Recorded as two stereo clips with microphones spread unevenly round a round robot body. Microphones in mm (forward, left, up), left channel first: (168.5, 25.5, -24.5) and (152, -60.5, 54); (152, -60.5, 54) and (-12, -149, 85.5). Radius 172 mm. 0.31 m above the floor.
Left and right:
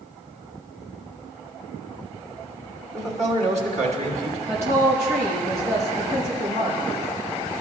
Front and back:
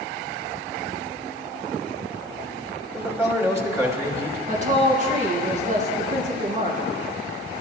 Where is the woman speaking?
105° right, 4 m.